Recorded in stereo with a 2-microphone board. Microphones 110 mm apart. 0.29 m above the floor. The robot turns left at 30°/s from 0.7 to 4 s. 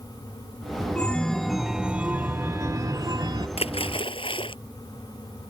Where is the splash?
65° left (ahead or behind); by 4.5 s 55° left (ahead or behind).